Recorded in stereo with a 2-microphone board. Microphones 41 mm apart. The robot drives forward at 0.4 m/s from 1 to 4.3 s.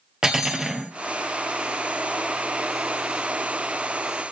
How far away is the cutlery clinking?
About 1.4 m.